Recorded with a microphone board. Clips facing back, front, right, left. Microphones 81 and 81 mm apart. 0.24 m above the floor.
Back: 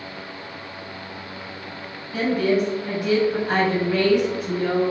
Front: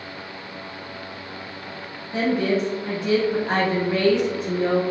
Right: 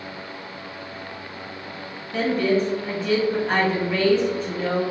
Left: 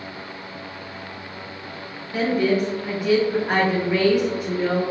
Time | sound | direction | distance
2.1 | a woman speaking | 25° left | 1.0 m